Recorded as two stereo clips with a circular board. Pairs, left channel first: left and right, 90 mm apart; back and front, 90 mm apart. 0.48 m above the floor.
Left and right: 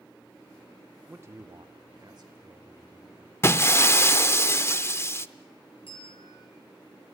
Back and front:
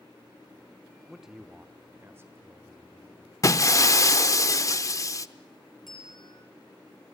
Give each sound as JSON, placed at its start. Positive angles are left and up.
{"t": 1.1, "sound": "a man speaking", "azimuth_deg": -95, "distance_m": 0.7}
{"t": 3.4, "sound": "breaking glass", "azimuth_deg": 140, "distance_m": 0.6}
{"t": 5.9, "sound": "a bell", "azimuth_deg": 95, "distance_m": 8.0}